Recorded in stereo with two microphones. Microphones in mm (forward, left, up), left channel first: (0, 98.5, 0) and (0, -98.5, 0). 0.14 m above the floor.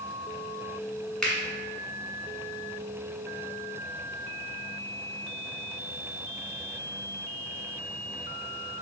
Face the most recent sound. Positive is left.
turn(degrees=5)  # may be behind; listen again after turning